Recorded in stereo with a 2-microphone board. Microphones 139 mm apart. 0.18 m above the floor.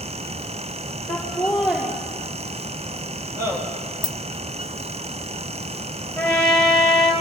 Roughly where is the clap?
I don't hear a clap.